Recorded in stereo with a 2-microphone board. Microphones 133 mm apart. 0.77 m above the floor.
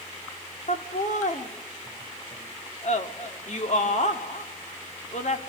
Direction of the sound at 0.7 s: 65° left (ahead or behind).